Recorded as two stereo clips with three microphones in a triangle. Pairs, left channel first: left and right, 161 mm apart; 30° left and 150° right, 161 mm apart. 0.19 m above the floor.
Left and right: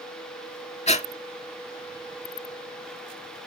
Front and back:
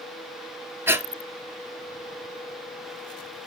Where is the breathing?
135° left, 0.7 m.